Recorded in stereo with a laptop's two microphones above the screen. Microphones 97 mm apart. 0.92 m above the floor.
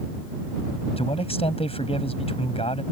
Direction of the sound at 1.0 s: 85° left.